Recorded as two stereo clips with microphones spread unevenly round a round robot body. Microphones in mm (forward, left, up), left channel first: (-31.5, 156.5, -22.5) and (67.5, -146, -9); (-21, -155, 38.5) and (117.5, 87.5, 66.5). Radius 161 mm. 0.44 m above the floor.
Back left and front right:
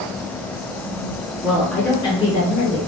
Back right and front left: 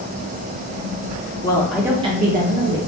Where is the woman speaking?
150° right, 0.8 m; by 2.8 s 70° left, 1.0 m.